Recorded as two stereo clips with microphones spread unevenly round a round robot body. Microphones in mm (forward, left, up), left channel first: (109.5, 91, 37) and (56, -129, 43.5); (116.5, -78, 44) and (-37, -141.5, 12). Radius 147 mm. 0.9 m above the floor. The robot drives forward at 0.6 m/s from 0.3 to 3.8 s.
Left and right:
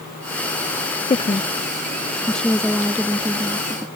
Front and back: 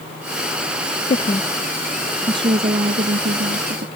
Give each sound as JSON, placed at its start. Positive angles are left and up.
{"t": 1.1, "sound": "a woman speaking", "azimuth_deg": 45}